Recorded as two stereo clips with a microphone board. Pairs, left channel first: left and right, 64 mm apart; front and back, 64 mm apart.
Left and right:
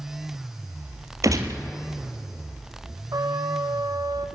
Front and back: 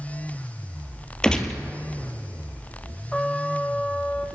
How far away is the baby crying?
I don't hear a baby crying.